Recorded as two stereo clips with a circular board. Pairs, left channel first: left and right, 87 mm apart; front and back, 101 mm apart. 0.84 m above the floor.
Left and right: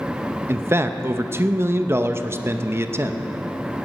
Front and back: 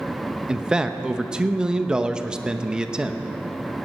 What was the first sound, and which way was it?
A man speaking, 105° right.